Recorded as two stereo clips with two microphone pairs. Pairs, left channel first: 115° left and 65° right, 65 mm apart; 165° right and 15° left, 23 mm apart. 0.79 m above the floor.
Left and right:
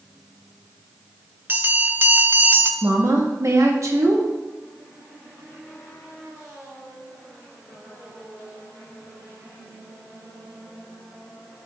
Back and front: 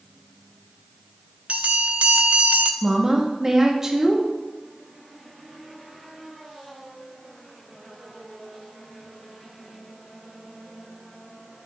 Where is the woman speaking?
50° right, 1.2 m.